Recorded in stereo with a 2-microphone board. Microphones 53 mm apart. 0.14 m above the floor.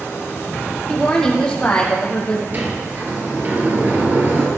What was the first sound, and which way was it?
A woman speaking, 10° left (ahead or behind).